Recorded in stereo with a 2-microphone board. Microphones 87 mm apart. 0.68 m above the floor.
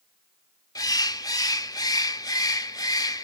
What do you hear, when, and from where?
0.8 s a bird: 45° left (ahead or behind), 0.5 m